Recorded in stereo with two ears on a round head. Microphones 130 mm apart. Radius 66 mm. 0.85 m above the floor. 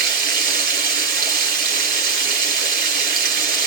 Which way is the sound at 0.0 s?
70° right (ahead or behind).